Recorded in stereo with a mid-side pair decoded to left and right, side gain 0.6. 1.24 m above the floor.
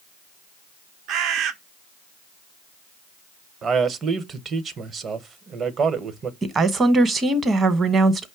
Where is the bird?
60° right, 0.8 m.